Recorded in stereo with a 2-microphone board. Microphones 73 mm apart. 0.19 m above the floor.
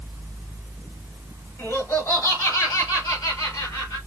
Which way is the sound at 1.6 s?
35° left (ahead or behind).